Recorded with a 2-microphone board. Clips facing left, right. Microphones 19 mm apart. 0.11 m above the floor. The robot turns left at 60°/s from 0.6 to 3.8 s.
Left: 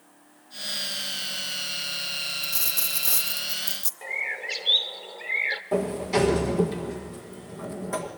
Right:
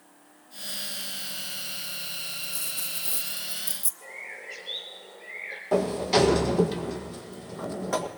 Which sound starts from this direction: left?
A bird, at 4.0 s.